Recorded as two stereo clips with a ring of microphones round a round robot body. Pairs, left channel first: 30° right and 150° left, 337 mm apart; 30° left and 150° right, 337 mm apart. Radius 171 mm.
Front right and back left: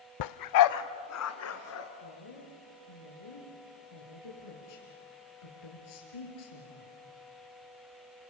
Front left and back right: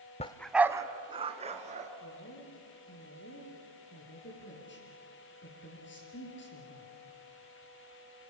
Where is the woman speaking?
30° right, 6.5 m.